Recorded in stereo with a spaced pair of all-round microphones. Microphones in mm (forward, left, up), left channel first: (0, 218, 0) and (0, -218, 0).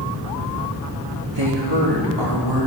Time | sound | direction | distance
1.3 | a woman speaking | 75° right (ahead or behind) | 4 m